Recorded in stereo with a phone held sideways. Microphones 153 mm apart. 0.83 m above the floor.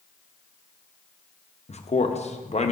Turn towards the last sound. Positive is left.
turn(degrees=45)  # may be behind; listen again after turning